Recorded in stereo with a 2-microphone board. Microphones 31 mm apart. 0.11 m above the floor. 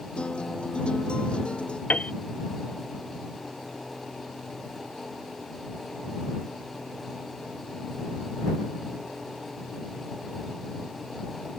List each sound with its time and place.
0.2 s a guitar: 35° left (ahead or behind)
1.9 s a piano: 50° left (ahead or behind)